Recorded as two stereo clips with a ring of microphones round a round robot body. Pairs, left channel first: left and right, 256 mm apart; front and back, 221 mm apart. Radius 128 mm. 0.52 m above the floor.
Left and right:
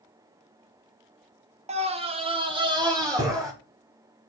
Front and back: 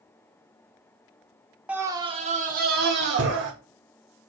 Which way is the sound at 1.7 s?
105° right.